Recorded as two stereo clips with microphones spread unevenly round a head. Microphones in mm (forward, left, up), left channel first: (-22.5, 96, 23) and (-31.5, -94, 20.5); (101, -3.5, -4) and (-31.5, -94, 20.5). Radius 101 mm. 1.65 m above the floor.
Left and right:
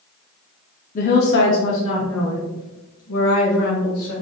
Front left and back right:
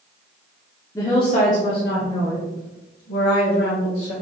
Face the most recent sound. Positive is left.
turn(degrees=70)